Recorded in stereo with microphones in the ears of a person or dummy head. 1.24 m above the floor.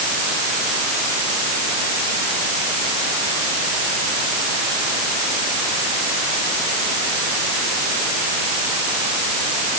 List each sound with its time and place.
Only background noise.